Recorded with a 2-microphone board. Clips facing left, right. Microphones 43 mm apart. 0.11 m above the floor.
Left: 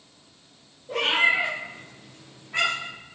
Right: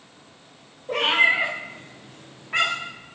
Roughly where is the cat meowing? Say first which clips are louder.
Right 2 dB; right.